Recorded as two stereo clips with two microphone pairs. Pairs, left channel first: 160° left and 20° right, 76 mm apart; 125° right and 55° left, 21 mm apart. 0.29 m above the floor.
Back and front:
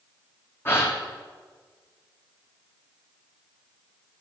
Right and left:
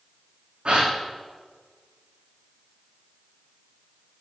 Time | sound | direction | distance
0.7 | a gasp | 100° left | 3 m